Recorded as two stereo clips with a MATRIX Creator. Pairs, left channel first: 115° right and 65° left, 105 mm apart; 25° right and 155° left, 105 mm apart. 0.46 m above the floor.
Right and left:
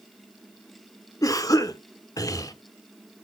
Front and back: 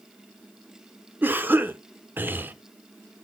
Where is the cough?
145° right, 1.2 m.